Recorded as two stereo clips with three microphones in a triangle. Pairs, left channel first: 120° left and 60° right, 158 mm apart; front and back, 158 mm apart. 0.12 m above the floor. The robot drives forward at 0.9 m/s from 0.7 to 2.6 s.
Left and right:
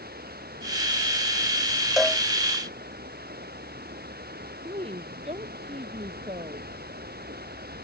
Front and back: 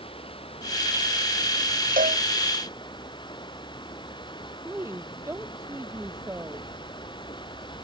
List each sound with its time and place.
0.0 s running water: 55° right; by 7.8 s 60° right
2.0 s a cowbell: 150° right
4.7 s a woman speaking: 105° right